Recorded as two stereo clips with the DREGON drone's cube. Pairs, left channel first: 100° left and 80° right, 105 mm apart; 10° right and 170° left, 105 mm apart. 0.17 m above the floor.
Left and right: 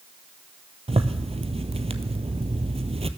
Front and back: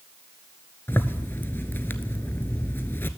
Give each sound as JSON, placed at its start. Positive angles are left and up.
{"t": 0.9, "sound": "a zipper", "azimuth_deg": -80, "distance_m": 0.6}